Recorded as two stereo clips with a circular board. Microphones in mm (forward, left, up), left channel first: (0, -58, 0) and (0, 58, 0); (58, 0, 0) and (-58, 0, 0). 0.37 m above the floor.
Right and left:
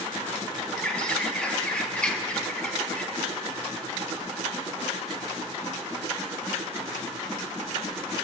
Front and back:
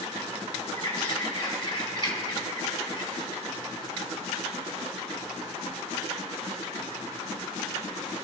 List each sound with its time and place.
0.8 s a bird: 15° right, 1.0 m